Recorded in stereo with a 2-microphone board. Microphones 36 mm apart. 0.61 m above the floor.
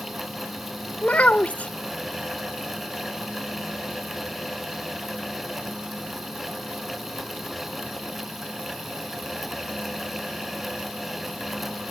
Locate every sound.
1.0 s a child speaking: 45° left (ahead or behind)